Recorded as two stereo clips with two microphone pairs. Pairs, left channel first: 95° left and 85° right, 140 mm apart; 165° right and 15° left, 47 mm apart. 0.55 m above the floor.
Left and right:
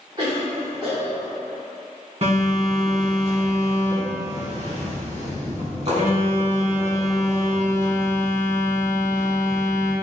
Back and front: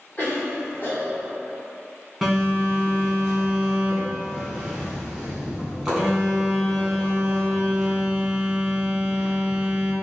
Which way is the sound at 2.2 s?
75° right.